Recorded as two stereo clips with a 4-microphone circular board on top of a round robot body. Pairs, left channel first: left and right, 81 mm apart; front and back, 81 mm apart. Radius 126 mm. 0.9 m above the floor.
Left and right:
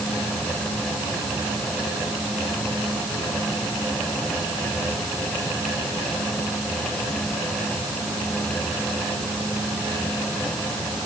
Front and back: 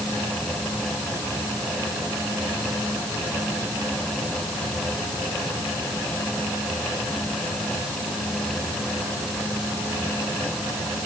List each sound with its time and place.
Only background noise.